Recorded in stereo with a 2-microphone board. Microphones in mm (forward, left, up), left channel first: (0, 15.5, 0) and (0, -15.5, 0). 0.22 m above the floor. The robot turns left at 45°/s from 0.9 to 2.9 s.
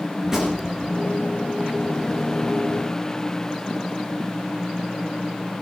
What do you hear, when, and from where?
0.2 s a gunshot: 20° right (ahead or behind), 4.5 m